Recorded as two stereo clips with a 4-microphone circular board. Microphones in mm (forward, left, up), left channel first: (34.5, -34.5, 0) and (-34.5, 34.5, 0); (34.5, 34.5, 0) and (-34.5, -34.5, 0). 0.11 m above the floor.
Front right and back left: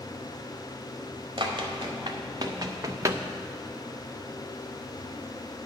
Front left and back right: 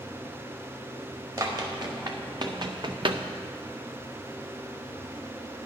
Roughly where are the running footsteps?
Behind.